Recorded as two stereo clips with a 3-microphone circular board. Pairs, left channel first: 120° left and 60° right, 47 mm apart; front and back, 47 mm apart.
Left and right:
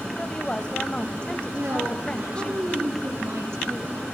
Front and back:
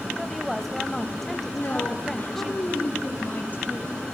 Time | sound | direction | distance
0.2 | a woman speaking | 85° left | 1.1 m
1.5 | a woman speaking | 55° right | 6.5 m